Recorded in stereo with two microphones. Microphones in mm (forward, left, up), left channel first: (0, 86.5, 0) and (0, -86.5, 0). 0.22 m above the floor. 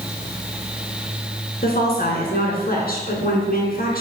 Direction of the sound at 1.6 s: 60° left (ahead or behind).